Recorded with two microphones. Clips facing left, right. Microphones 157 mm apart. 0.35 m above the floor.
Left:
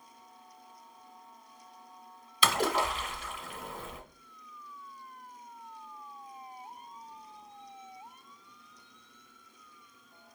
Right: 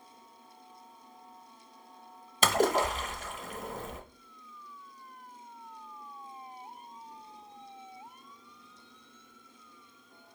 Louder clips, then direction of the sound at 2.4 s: Right 3 dB; 45° right (ahead or behind).